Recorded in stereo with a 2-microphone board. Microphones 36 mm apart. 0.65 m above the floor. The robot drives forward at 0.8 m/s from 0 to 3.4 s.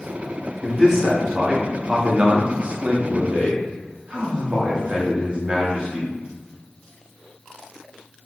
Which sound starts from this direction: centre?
A man speaking, at 0.6 s.